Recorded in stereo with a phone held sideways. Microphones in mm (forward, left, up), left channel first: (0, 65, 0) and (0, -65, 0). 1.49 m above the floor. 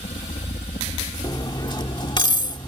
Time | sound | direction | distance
0.0 | a helicopter | 65° left (ahead or behind) | ?
1.2 | cutlery clinking | 35° left (ahead or behind) | ?